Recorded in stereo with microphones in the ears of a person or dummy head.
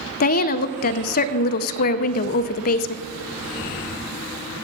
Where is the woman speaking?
50° left (ahead or behind), 0.5 m.